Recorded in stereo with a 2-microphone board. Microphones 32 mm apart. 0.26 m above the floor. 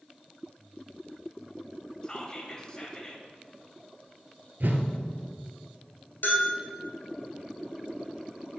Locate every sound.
2.0 s whispering: 20° left (ahead or behind), 1.2 m
4.6 s a whoosh: 75° right (ahead or behind), 1.0 m
6.2 s a bell: 70° left (ahead or behind), 3 m